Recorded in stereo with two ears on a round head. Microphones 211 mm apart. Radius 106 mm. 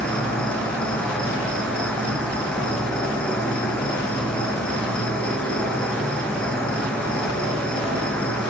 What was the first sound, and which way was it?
An insect, 5° left (ahead or behind).